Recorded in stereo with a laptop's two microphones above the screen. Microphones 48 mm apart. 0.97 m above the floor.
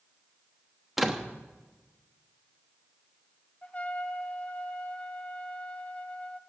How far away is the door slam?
About 1.0 m.